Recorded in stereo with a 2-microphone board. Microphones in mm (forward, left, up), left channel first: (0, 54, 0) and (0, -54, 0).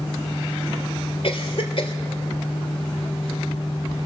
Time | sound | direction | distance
1.2 | a cough | 60° left (ahead or behind) | 2 m